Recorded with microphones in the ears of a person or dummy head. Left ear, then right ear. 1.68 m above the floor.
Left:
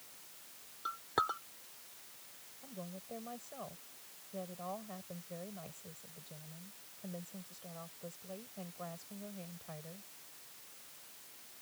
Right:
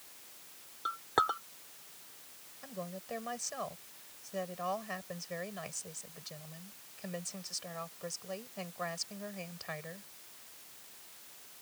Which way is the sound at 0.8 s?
20° right (ahead or behind).